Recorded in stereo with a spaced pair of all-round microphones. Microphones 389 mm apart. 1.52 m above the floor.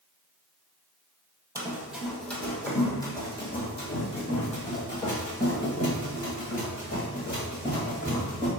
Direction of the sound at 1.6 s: 10° right (ahead or behind).